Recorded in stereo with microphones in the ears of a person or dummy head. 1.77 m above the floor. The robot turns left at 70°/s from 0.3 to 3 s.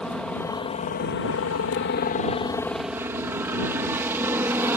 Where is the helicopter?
Straight behind; by 4.8 s 10° right.